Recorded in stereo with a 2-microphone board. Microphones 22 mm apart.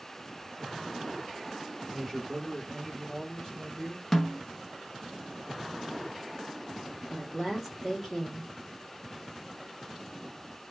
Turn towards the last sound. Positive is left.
turn(degrees=10)  # may be behind; listen again after turning